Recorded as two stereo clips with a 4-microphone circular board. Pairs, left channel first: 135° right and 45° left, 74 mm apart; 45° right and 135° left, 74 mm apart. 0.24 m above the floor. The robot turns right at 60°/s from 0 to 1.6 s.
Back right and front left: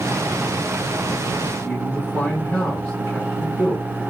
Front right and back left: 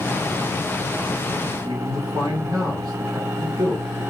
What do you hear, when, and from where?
1.6 s a man speaking: 160° left, 3.5 m